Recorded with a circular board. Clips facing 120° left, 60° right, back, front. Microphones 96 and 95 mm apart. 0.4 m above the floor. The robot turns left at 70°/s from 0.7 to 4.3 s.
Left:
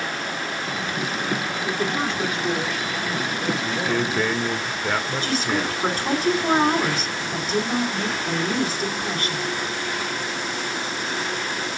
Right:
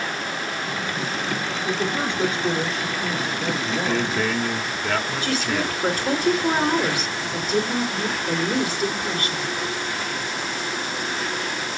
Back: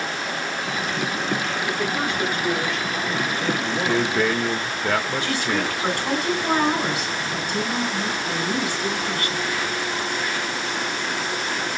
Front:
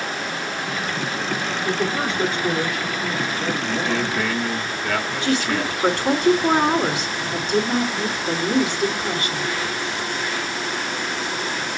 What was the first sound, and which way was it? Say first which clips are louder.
A woman speaking: even, front 4 dB; 20° left.